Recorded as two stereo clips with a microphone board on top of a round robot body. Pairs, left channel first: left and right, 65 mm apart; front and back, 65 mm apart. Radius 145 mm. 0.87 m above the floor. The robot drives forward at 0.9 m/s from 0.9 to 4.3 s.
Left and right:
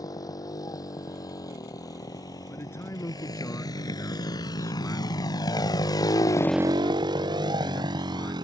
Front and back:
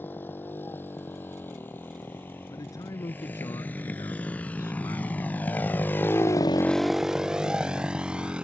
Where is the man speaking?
35° left; by 8.3 s 40° left.